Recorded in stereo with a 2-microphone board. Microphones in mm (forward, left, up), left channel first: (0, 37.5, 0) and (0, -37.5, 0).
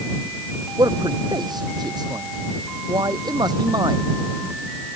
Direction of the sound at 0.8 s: 60° right (ahead or behind).